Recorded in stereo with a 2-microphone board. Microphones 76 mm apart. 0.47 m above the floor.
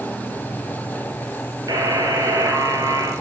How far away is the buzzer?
About 1.3 m.